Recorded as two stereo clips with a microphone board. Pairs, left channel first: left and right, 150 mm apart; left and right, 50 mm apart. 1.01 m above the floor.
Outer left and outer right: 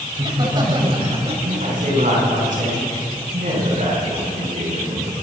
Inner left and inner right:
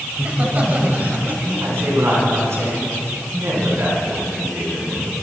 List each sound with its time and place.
0.1 s laughter: 25° right (ahead or behind), 7 m; by 1.3 s 40° right (ahead or behind), 6.5 m
1.4 s a man speaking: 65° right (ahead or behind), 9.5 m